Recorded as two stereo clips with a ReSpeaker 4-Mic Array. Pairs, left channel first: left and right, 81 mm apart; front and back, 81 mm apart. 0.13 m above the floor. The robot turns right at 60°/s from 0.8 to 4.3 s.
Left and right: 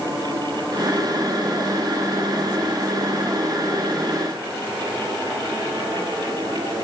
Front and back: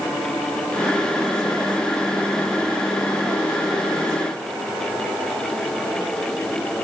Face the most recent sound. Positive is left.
No sound to turn to.